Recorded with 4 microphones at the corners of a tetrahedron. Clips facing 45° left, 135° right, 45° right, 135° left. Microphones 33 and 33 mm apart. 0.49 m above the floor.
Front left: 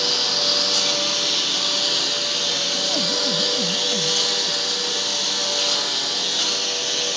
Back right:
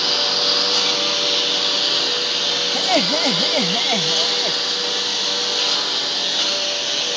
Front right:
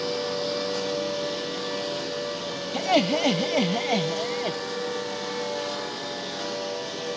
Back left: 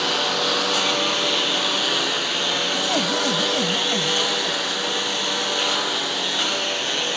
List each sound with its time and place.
0.0 s a lawn mower: 150° left
2.7 s laughter: 110° right